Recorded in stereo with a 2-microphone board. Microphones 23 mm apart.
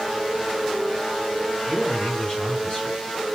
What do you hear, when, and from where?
1.7 s a man speaking: 45° left (ahead or behind), 5 m